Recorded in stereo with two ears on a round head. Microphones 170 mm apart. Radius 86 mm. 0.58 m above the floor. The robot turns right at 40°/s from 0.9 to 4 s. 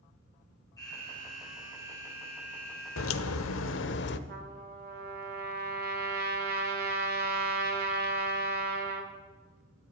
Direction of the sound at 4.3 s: 55° right (ahead or behind).